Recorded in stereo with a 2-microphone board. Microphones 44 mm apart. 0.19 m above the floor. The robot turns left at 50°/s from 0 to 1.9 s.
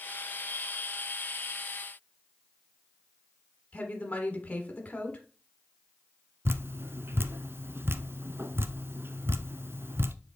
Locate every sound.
3.7 s a woman speaking: 30° left (ahead or behind), 1.4 m
6.5 s dripping: 55° right (ahead or behind), 0.6 m